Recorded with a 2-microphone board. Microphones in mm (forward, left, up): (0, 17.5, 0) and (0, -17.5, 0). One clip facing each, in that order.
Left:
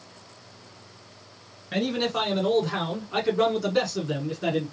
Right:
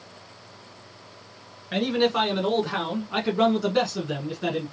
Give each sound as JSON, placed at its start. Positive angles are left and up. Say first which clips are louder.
{"t": 1.7, "sound": "a man speaking", "louder": "right 3 dB", "side_deg": -15, "distance_m": 1.5}